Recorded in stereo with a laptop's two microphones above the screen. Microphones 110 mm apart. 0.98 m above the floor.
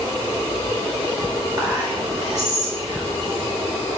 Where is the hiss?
I don't hear a hiss.